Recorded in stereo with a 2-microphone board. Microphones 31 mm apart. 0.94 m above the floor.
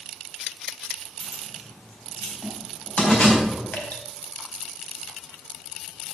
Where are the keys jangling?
65° left (ahead or behind), 3.5 m; by 3.6 s 45° left (ahead or behind), 4 m.